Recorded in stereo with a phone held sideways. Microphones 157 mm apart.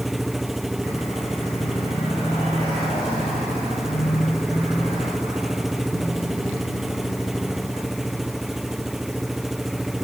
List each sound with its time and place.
0.0 s an engine running: centre (ahead or behind)